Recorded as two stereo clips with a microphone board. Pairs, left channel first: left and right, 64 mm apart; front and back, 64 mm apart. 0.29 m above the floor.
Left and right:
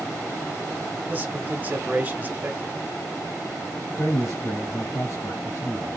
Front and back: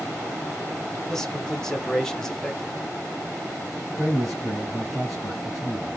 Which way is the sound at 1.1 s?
75° right.